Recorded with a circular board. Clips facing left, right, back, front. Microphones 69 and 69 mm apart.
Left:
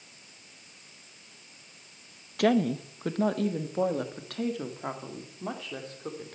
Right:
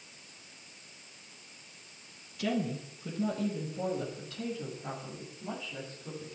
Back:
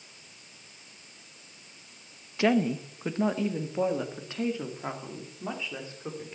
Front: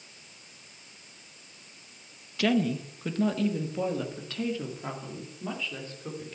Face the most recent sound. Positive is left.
turn(degrees=110)